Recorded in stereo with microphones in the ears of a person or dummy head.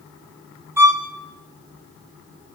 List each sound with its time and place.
0.8 s a violin: 15° right (ahead or behind), 1.1 m